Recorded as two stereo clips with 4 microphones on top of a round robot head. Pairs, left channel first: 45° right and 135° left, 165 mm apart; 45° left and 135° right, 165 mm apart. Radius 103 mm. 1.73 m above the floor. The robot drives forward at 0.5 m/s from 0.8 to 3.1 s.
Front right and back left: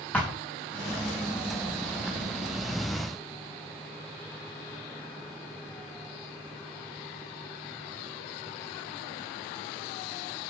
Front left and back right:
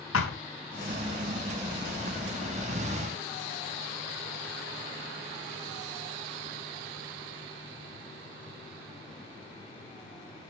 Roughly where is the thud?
Ahead left.